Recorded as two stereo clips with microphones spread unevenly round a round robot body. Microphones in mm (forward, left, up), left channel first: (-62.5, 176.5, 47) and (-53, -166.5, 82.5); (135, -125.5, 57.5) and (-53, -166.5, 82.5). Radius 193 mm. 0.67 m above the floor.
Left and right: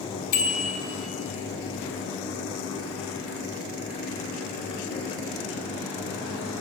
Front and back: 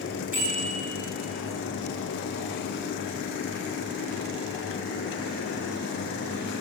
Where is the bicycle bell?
110° left, 2.5 m.